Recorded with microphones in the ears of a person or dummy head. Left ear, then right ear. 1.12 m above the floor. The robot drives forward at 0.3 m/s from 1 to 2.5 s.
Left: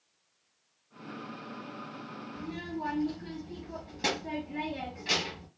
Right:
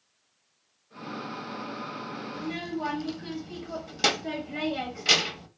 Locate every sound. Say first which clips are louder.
2.3 s a child speaking: right 4 dB; 45° right (ahead or behind), 1.1 m